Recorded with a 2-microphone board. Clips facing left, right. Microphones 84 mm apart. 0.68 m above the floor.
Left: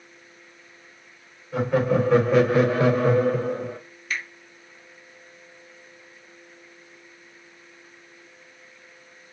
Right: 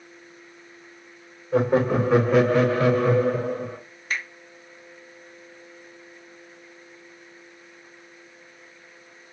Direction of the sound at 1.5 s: 35° right (ahead or behind).